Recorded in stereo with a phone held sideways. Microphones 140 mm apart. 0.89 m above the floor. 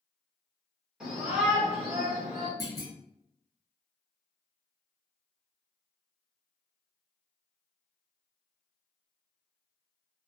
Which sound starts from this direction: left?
A clunk, at 2.6 s.